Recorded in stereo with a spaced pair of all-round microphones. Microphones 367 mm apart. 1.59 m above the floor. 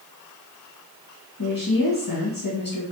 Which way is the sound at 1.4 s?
75° left (ahead or behind).